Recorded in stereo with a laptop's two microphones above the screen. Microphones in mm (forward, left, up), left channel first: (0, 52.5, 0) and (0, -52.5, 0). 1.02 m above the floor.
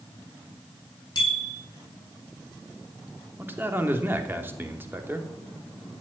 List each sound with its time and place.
1.1 s a bicycle bell: 45° left (ahead or behind), 8 m
3.4 s a man speaking: 20° right (ahead or behind), 2.5 m